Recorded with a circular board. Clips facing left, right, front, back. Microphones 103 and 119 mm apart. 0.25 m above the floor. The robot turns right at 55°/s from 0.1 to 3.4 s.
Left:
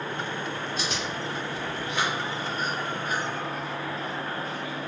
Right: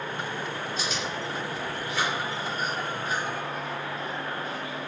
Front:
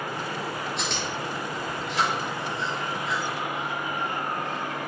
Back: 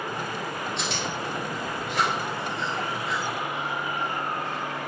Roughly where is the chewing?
Left.